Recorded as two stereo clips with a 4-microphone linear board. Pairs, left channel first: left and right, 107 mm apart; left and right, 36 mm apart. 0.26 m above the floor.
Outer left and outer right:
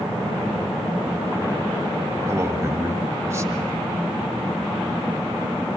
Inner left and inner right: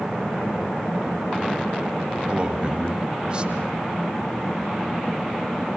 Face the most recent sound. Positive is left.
turn(degrees=-25)  # may be behind; listen again after turning